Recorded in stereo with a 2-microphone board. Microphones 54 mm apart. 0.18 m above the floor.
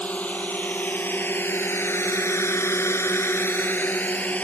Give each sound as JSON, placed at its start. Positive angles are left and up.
{"t": 0.0, "sound": "a drone", "side_deg": 30}